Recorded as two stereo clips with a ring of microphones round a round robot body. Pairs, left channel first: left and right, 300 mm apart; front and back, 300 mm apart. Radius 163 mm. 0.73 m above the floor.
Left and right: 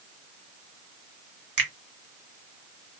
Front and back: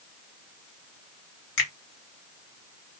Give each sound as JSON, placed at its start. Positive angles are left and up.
{"t": 1.6, "sound": "a finger snap", "azimuth_deg": -40, "distance_m": 1.7}